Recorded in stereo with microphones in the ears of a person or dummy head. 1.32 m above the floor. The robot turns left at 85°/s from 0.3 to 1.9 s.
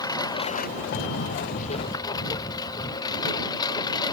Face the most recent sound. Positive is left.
turn(degrees=35)  # may be behind; listen again after turning